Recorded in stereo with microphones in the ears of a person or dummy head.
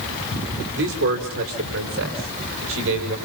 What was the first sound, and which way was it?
A man speaking, 70° right (ahead or behind).